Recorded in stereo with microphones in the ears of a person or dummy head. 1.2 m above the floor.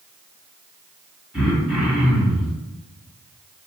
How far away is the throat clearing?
About 1.8 m.